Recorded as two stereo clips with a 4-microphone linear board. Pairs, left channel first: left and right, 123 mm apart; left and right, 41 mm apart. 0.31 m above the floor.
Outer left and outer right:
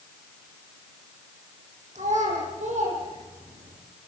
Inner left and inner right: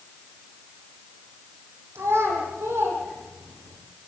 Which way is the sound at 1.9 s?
75° right (ahead or behind).